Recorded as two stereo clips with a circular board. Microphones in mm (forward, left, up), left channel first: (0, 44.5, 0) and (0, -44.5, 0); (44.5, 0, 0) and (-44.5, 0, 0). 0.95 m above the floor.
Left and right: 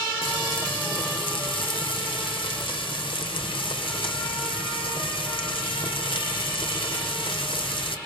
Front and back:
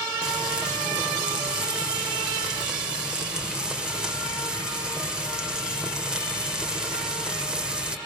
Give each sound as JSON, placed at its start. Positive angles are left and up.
{"t": 0.2, "sound": "frying", "azimuth_deg": 100, "distance_m": 2.0}